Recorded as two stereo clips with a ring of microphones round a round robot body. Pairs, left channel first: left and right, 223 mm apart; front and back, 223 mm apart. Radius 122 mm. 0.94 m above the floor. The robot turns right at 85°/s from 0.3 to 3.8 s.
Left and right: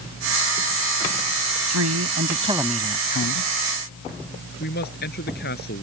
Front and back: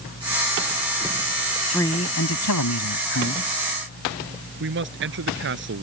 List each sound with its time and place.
1.7 s a man speaking: 90° right; by 3.5 s 65° left
4.6 s a man speaking: 145° left